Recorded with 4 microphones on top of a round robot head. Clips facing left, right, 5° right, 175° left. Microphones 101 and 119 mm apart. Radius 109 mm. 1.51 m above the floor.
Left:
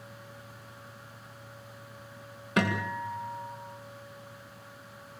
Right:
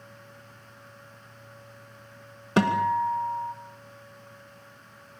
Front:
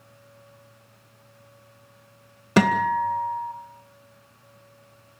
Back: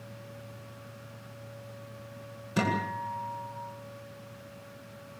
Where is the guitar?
30° right, 2.5 m.